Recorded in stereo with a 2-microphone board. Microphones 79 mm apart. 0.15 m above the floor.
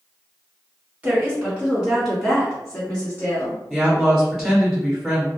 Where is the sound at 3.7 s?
Centre (ahead or behind), 1.2 m.